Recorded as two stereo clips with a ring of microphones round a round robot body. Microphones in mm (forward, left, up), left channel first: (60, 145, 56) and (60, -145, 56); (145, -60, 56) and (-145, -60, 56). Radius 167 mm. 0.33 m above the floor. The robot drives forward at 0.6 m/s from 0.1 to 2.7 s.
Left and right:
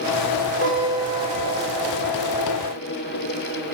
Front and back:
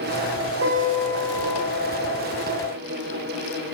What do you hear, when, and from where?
0.6 s a guitar: 140° left, 2 m; by 1.6 s 150° left, 2.5 m